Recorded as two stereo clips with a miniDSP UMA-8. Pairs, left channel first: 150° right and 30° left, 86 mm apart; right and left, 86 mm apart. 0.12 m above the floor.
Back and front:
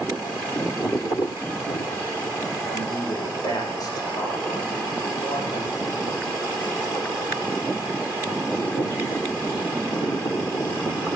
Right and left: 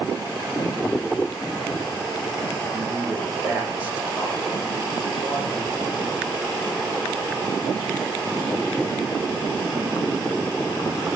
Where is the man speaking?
165° left, 6.5 m.